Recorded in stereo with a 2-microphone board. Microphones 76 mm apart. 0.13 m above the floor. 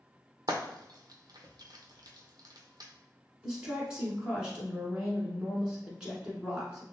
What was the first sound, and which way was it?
Frying, 60° right (ahead or behind).